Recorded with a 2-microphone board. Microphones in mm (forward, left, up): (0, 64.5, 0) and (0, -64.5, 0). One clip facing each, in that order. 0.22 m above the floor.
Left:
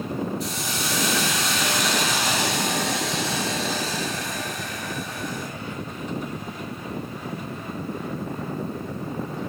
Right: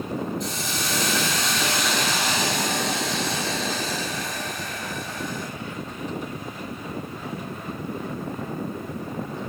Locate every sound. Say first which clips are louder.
0.4 s a hiss: left 1 dB; 5° left (ahead or behind), 5 m